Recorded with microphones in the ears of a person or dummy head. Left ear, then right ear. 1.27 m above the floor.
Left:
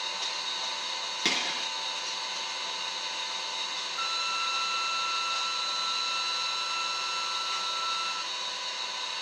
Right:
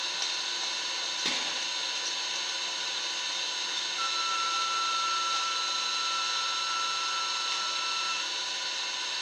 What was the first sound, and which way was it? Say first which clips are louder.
An engine running: right 1 dB; 30° right (ahead or behind).